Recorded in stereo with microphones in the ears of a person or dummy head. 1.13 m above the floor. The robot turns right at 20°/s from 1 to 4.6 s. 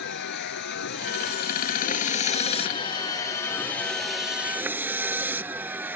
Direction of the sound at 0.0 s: 120° left.